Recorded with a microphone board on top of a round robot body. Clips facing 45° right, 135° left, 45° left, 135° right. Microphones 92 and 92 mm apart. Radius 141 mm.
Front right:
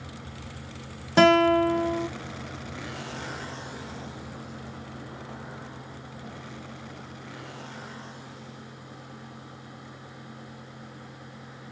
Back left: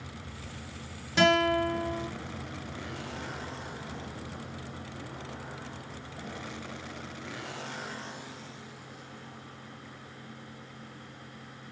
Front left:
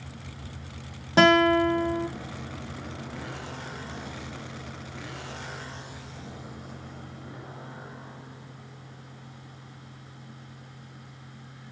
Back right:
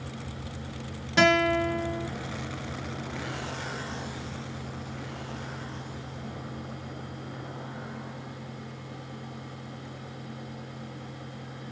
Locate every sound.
1.2 s a guitar: 5° right, 1.6 m